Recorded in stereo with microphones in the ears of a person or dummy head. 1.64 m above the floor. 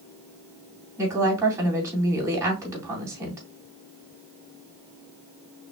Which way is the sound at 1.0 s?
20° right (ahead or behind).